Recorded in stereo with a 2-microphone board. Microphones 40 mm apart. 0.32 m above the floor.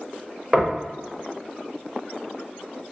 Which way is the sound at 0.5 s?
5° right (ahead or behind).